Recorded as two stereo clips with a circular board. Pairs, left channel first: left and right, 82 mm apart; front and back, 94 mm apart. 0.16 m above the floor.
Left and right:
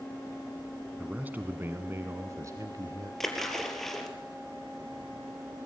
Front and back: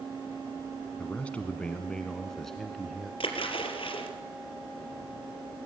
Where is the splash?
5° left, 3 m.